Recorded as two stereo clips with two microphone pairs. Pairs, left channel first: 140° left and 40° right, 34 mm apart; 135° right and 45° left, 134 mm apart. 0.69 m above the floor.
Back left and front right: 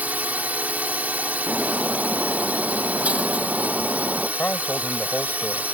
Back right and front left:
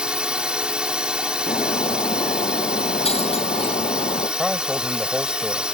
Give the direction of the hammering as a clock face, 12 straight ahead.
No hammering in this recording.